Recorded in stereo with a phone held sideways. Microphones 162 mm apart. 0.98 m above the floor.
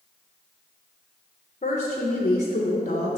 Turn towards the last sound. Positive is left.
turn(degrees=45)  # may be behind; listen again after turning